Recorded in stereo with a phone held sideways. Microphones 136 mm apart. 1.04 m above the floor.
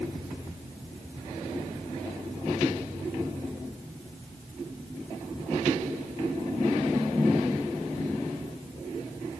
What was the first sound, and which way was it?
Only background noise.